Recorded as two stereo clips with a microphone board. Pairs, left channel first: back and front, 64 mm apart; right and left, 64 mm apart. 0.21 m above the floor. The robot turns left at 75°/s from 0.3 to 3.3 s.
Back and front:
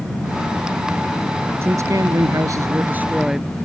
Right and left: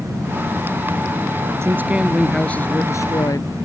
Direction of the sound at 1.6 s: 45° left.